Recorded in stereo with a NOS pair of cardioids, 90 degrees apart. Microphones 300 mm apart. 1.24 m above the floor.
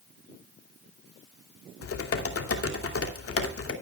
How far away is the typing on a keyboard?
About 2.5 m.